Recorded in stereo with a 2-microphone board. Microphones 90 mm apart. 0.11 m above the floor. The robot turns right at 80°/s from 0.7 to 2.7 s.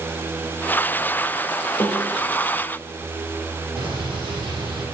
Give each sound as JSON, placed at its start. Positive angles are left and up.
{"t": 1.8, "sound": "a snare drum", "azimuth_deg": 150, "distance_m": 5.0}
{"t": 3.8, "sound": "an explosion", "side_deg": -70, "distance_m": 4.5}